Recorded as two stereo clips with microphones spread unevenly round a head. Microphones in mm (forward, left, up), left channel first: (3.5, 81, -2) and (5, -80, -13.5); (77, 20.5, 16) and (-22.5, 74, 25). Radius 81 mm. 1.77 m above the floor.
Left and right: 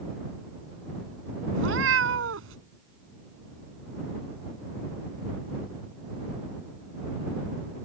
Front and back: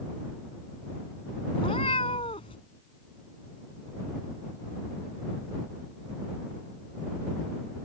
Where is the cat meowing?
90° right.